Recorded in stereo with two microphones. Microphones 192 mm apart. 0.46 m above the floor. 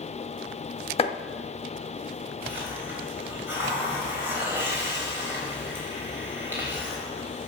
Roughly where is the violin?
I don't hear a violin.